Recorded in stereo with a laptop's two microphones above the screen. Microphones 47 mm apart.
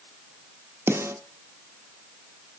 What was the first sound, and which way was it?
A snare drum, 80° right.